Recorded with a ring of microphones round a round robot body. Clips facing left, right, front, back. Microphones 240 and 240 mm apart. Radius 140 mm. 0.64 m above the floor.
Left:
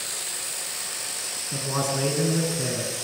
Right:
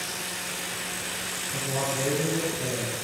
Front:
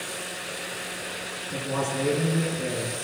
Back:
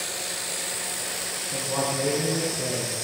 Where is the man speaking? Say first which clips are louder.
Left 2 dB, even; 80° left, 8 m; by 2.9 s 85° left, 7.5 m.